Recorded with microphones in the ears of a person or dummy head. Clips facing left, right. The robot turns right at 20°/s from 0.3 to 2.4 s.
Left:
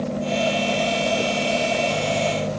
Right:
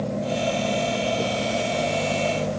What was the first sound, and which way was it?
Only background noise.